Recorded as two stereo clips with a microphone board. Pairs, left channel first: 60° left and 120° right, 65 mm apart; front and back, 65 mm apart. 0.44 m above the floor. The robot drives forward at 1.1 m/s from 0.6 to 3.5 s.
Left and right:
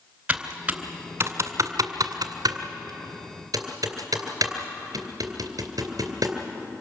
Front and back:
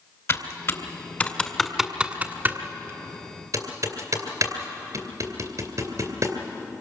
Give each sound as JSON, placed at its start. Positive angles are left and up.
{"t": 0.3, "sound": "typing on a keyboard", "azimuth_deg": -50, "distance_m": 1.8}